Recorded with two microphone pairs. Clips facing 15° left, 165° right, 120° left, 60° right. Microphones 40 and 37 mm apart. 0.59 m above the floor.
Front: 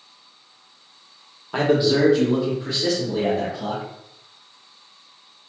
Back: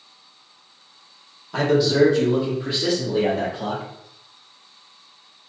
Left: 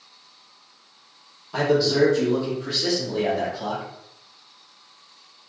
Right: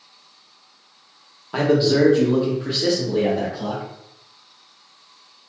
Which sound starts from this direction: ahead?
A man speaking, at 1.5 s.